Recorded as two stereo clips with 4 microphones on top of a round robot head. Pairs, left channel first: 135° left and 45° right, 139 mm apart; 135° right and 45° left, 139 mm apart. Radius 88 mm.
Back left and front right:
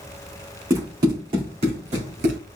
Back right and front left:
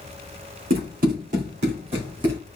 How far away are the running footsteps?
About 3 m.